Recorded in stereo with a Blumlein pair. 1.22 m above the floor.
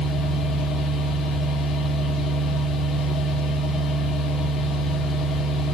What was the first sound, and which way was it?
A machine running, 25° left.